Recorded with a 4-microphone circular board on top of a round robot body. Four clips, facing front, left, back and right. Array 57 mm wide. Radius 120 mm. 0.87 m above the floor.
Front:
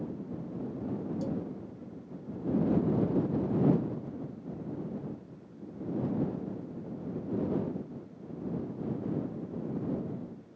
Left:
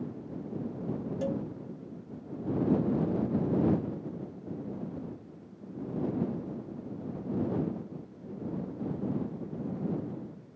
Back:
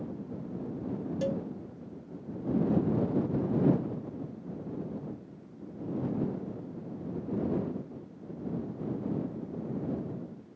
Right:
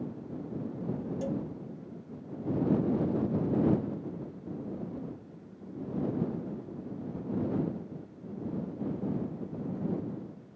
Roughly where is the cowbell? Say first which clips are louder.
Left 2 dB, back 6 dB; behind.